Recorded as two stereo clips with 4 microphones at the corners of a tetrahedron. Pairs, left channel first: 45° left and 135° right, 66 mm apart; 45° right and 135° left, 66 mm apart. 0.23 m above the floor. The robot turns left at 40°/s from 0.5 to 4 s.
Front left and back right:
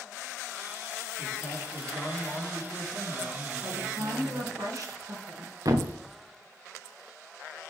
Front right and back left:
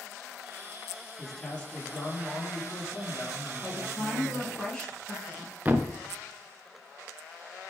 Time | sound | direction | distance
1.2 | a man speaking | 40° left | 4.5 m
3.6 | a woman speaking | 105° right | 3.5 m
5.7 | a thud | 160° right | 1.1 m